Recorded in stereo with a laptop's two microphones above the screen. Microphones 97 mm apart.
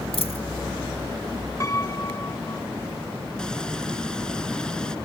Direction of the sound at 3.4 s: 10° left (ahead or behind).